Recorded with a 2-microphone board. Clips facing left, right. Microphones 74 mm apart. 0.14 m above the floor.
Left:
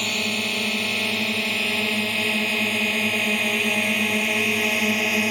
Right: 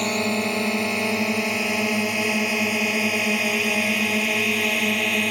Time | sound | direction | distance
0.0 | a drone | 25° right (ahead or behind) | ?